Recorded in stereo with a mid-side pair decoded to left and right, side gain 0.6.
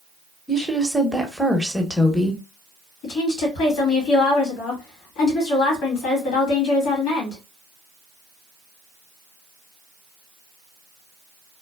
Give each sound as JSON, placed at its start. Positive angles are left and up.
{"t": 0.5, "sound": "a woman speaking", "azimuth_deg": 5, "distance_m": 0.9}
{"t": 3.0, "sound": "a woman speaking", "azimuth_deg": 65, "distance_m": 1.8}